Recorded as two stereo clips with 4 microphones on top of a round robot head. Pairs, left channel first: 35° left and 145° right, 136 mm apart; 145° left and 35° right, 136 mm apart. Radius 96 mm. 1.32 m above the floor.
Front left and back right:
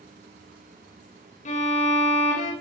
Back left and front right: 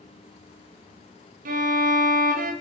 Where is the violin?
5° right, 1.1 m.